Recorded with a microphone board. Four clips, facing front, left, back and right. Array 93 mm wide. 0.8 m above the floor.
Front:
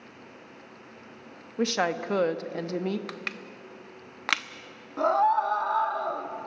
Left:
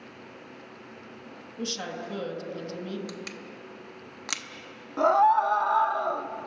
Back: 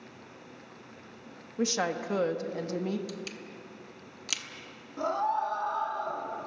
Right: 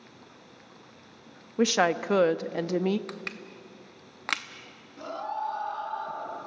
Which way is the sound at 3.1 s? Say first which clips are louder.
Left 1 dB, front 1 dB; 25° right.